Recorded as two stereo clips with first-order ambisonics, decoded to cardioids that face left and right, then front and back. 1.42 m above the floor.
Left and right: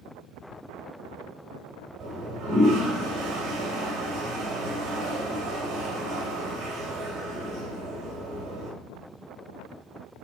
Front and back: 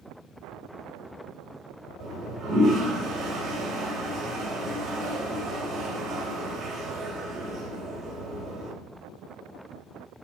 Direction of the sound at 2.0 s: 135° right.